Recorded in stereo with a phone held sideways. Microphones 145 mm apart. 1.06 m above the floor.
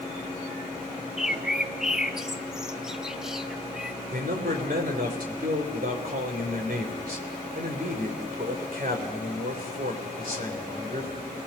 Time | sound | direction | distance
1.2 | a bird | 5° right (ahead or behind) | 0.9 m
4.1 | a man speaking | 85° right | 3.5 m